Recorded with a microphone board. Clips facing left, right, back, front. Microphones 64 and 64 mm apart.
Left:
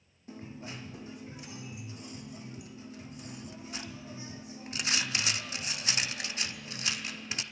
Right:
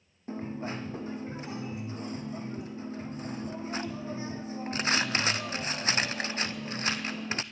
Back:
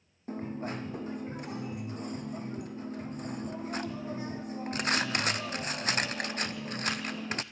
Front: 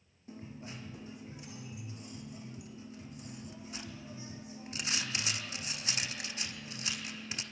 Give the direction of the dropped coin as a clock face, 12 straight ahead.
5 o'clock.